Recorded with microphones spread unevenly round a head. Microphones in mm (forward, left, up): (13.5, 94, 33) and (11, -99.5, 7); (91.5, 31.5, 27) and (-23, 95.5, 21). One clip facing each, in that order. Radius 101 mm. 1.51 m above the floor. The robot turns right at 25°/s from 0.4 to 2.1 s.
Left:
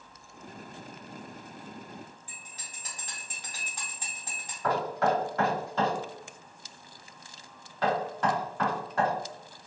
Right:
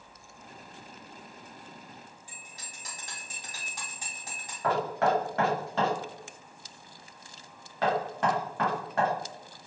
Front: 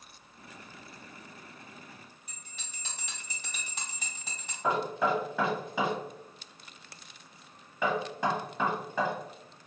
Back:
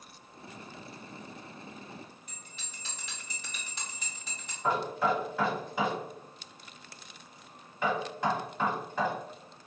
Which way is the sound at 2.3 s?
5° right.